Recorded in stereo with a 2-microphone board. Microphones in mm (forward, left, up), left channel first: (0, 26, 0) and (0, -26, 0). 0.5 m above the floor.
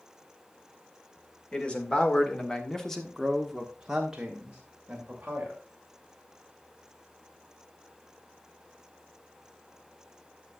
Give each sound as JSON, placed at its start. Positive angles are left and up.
{"t": 1.5, "sound": "a man speaking", "side_deg": 20, "distance_m": 2.0}